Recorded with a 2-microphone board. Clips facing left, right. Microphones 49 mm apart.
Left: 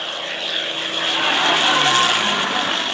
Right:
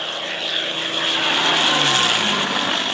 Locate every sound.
1.0 s laughter: 10° left (ahead or behind), 2.5 m